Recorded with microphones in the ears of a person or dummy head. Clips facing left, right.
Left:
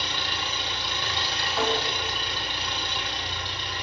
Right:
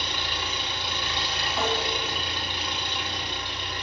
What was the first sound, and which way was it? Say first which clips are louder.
An engine running: even; 5° right (ahead or behind).